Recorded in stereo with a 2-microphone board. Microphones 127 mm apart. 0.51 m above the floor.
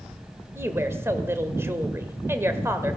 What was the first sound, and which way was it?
A woman speaking, 20° right (ahead or behind).